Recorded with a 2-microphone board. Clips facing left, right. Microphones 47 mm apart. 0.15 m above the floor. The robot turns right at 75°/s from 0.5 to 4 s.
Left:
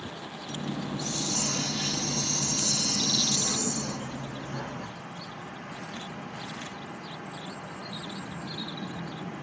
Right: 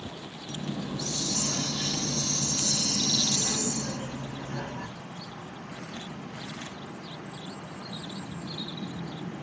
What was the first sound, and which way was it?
A hiss, straight ahead.